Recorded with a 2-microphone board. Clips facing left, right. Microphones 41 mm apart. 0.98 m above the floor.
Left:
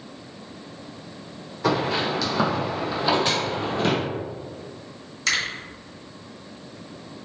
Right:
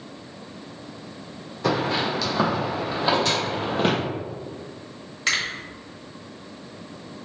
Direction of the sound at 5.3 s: 25° right (ahead or behind).